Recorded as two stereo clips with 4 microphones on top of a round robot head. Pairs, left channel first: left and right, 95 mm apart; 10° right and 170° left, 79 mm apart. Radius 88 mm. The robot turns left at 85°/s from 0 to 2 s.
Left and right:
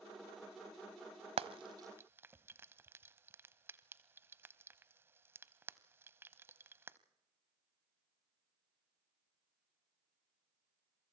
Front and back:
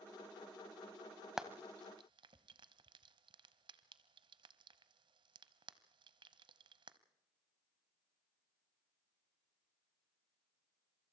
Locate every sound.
1.4 s frying: 100° right, 1.0 m; by 7.0 s 155° right, 1.0 m